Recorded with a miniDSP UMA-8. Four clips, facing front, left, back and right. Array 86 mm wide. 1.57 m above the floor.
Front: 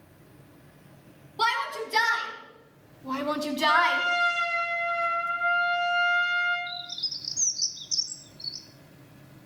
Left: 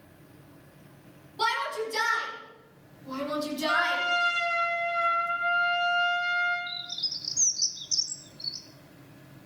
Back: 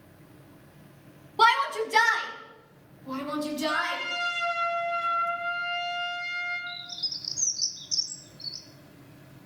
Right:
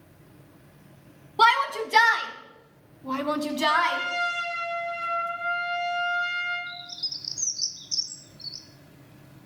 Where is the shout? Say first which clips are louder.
Right 8 dB, back 5 dB; 120° right, 2.5 m; by 4.0 s 35° right, 2 m.